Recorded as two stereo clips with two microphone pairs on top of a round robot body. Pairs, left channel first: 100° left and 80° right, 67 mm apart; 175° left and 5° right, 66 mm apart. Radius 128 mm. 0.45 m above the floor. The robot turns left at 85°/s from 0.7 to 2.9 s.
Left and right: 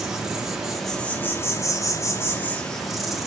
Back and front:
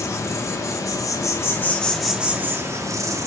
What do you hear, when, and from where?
0.0 s an insect: 165° right, 0.8 m; by 3.3 s 10° left, 0.8 m